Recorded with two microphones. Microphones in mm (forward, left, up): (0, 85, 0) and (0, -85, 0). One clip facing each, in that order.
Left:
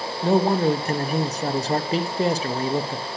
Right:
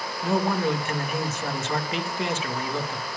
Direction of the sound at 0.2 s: 35° left (ahead or behind).